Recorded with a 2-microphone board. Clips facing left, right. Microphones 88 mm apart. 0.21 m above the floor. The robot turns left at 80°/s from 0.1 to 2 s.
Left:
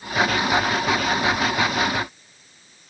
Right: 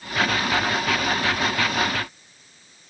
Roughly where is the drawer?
No drawer in this recording.